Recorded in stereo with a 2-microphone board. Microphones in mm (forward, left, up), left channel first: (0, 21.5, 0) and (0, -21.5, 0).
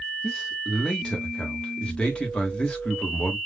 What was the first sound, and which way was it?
A man speaking, 25° left (ahead or behind).